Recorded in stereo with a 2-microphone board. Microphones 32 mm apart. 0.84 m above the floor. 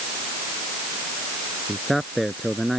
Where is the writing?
I don't hear writing.